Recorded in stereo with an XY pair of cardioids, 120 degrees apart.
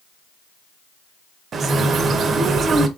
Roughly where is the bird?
Ahead right.